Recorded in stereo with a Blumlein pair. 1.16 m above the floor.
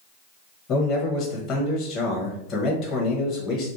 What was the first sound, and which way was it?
A man speaking, 35° left.